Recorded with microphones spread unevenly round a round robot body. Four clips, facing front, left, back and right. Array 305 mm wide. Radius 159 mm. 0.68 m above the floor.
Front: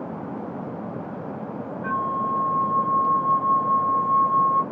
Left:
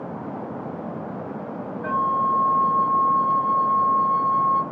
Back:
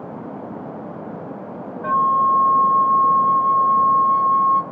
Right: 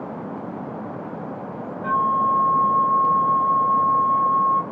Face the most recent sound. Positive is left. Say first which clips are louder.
# right 2 dB, back 9 dB
turn(degrees=180)